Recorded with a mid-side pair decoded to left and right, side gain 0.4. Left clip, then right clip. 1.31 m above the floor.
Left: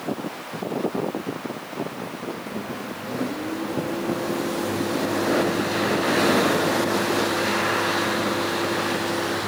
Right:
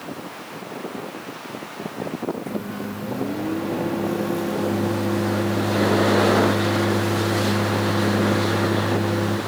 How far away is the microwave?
About 1.1 m.